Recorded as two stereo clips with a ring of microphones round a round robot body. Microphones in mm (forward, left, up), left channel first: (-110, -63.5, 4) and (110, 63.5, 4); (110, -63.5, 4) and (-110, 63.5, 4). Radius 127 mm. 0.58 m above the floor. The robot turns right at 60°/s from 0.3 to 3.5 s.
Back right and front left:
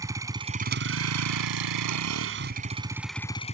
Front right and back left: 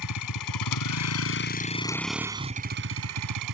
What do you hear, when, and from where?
0.0 s a vehicle: 50° right; by 3.5 s 145° left